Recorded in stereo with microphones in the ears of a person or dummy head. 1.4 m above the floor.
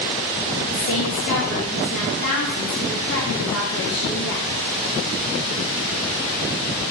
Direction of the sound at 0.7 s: 50° left (ahead or behind).